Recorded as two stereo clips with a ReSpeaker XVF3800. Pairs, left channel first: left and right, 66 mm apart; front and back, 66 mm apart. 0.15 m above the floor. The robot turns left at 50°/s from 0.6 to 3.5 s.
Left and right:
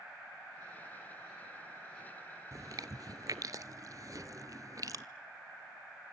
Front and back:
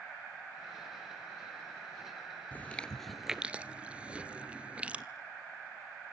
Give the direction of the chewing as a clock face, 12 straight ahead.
2 o'clock.